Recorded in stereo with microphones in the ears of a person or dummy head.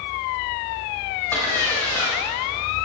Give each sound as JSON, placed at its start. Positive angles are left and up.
{"t": 1.3, "sound": "a splash", "side_deg": 10, "distance_m": 5.5}